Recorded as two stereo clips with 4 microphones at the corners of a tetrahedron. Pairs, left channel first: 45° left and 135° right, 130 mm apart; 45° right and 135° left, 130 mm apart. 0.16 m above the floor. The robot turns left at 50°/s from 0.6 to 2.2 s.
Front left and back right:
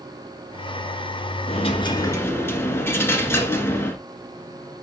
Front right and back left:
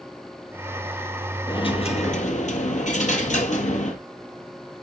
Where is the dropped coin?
10° left, 1.5 m; by 4.0 s 25° right, 1.5 m.